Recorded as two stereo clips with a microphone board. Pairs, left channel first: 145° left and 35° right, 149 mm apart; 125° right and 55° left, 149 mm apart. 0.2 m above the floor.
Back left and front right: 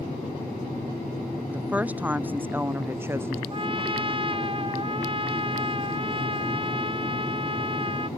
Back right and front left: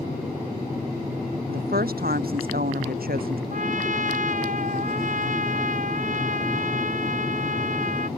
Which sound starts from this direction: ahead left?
A woman speaking, at 1.5 s.